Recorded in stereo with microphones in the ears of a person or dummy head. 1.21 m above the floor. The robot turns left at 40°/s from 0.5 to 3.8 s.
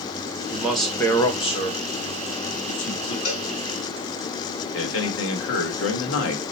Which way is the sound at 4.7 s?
85° left.